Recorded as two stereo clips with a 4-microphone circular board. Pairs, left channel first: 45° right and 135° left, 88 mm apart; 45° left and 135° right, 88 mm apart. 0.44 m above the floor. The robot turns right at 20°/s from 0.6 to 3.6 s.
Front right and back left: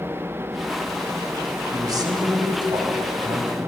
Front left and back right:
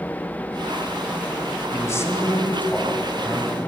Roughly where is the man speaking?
Left.